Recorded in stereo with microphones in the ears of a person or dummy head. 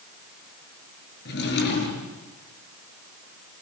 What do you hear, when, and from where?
1.2 s a drawer: 65° left (ahead or behind), 7.5 m